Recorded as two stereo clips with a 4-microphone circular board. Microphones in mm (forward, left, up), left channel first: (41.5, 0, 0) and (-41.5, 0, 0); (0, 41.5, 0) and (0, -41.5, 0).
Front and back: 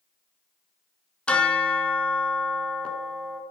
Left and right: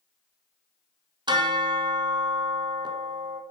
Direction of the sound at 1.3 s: 75° right.